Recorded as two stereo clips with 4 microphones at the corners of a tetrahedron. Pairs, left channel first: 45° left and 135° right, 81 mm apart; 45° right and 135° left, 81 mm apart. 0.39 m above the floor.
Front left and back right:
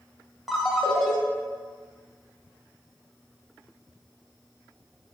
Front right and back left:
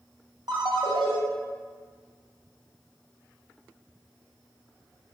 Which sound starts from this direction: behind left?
A ringtone, at 0.5 s.